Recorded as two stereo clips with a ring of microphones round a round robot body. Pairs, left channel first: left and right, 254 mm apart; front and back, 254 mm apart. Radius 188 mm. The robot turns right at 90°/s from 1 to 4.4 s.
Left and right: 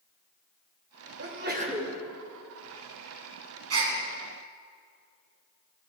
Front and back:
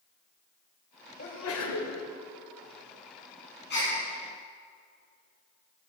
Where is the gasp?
65° right, 3 m; by 4.0 s 40° right, 3 m.